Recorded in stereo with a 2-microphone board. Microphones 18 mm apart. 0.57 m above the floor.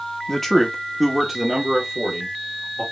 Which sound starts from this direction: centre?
A man speaking, at 0.3 s.